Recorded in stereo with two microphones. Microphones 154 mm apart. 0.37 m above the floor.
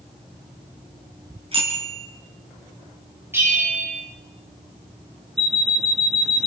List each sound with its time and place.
1.5 s a bicycle bell: 40° right (ahead or behind), 3.5 m
3.3 s a bell: 15° right (ahead or behind), 8.5 m
5.4 s an alarm clock: centre (ahead or behind), 2.5 m